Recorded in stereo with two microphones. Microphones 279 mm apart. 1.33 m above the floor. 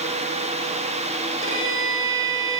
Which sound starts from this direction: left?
A violin, at 1.4 s.